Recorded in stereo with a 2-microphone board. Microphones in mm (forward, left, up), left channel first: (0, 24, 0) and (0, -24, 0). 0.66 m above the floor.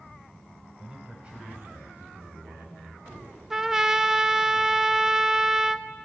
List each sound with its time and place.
0.8 s a man speaking: 15° right (ahead or behind), 3 m; by 3.4 s 50° right (ahead or behind), 5.5 m
3.5 s a trumpet: 10° right (ahead or behind), 0.6 m